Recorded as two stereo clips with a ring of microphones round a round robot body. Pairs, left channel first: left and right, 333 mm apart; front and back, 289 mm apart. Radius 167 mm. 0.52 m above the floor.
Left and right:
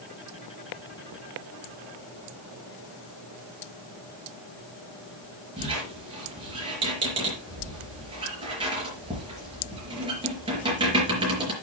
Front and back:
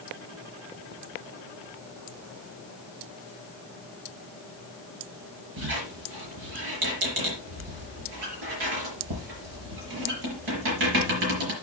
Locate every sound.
5.6 s a squeak: 165° right, 4.5 m